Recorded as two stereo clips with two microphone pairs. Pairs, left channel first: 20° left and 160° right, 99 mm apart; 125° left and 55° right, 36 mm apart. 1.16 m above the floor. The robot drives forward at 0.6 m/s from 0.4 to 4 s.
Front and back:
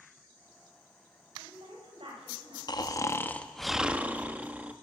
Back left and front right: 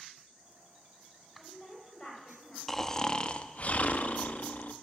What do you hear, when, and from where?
1.4 s a woman speaking: 165° right, 4.5 m; by 2.6 s 170° right, 5 m
2.7 s snoring: 45° left, 0.7 m; by 4.7 s 130° left, 0.7 m